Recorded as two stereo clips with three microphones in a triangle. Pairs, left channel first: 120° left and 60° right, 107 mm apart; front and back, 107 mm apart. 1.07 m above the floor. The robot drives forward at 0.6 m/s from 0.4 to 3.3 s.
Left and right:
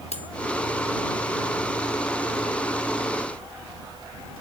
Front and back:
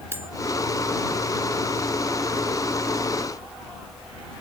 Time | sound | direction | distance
0.1 | cutlery clinking | 115° left | 1.6 m